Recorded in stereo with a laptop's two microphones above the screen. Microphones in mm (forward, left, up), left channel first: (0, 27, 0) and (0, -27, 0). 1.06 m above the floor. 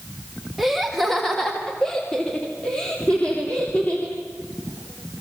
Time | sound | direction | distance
0.6 | laughter | centre (ahead or behind) | 1.8 m